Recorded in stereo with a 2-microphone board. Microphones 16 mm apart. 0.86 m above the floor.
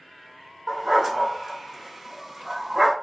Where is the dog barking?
30° right (ahead or behind), 1.3 m.